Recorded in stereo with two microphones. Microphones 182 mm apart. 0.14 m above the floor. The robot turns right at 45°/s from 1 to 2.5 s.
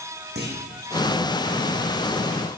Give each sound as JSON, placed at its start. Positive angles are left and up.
{"t": 0.3, "sound": "a clunk", "side_deg": -65, "distance_m": 7.5}